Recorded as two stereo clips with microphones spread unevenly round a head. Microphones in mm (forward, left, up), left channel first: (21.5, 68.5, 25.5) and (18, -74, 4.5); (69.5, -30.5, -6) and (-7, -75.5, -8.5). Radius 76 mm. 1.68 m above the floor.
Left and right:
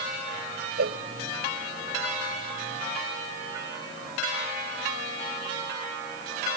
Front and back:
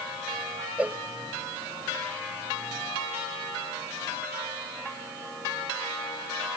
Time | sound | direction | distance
0.8 | a cowbell | 75° right | 0.9 m